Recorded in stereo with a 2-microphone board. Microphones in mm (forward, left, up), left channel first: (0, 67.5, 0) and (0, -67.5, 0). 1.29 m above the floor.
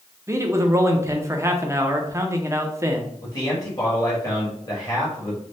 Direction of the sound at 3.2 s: 30° left (ahead or behind).